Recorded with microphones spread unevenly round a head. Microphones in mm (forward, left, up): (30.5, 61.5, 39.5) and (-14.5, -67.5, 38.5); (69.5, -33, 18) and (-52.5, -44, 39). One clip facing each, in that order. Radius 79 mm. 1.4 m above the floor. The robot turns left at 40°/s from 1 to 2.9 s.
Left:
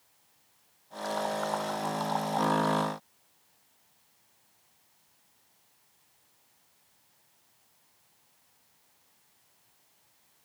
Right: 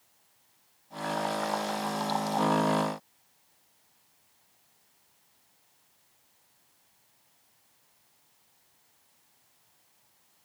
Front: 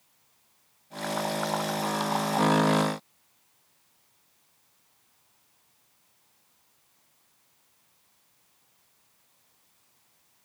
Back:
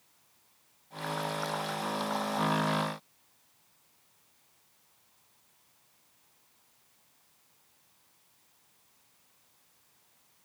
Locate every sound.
Only background noise.